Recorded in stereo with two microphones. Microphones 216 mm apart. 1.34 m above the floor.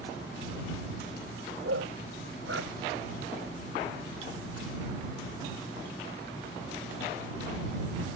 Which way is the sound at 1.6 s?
70° right (ahead or behind).